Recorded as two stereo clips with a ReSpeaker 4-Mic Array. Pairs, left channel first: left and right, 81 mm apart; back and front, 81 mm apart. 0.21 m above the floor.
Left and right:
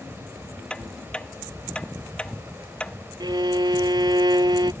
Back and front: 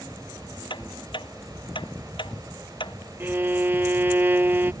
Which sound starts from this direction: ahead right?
A violin, at 3.2 s.